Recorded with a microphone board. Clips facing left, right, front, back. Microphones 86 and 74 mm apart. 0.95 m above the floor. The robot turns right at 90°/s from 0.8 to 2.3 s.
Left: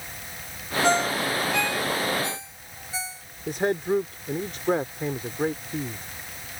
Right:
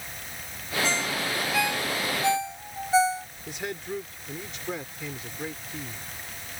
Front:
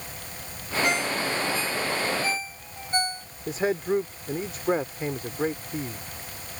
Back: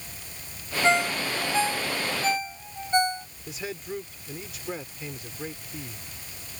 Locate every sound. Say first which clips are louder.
0.8 s a ringtone: left 8 dB, back 4 dB; 120° left; by 3.3 s 110° right
3.5 s a man speaking: left 11 dB, front 11 dB; 45° left